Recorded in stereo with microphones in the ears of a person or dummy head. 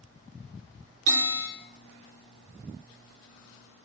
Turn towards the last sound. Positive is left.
turn(degrees=-60)  # may be behind; listen again after turning